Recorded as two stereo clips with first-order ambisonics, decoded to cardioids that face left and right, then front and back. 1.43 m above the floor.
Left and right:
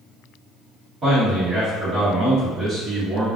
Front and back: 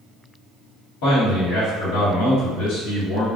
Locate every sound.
1.0 s a man speaking: 20° right, 1.4 m